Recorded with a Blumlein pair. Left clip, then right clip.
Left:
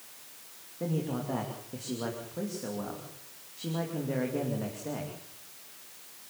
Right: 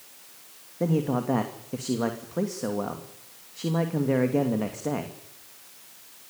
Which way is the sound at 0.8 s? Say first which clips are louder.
Right 8 dB; 25° right.